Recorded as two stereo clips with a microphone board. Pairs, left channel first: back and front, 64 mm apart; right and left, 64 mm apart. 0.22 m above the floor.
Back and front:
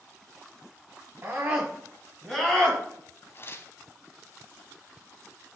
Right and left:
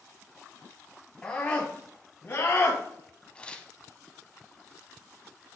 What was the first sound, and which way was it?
A scream, 25° right.